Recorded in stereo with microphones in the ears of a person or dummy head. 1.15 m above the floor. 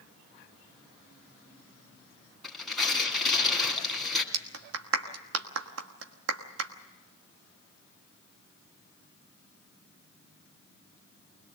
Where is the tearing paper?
5° left (ahead or behind), 3 m.